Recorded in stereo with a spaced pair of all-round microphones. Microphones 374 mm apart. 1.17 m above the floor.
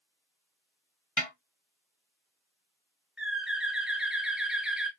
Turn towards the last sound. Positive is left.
turn(degrees=0)  # may be behind; listen again after turning